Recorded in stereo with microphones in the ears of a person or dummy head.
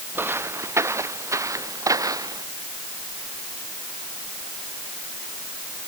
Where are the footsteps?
10° right (ahead or behind); by 2.5 s 20° right (ahead or behind).